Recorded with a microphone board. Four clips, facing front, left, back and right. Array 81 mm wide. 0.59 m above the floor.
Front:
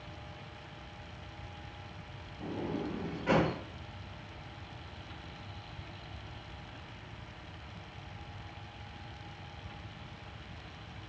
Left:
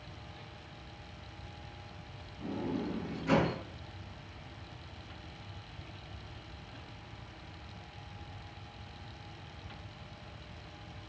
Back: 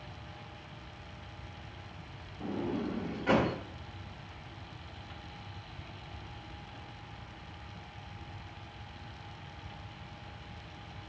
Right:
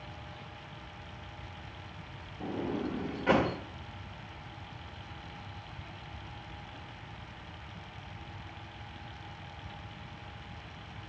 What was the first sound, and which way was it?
A sliding door, 95° right.